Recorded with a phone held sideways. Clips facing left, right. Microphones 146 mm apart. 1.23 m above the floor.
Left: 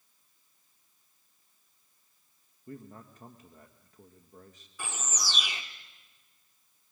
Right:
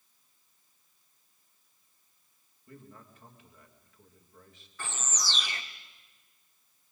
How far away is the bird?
About 1.4 m.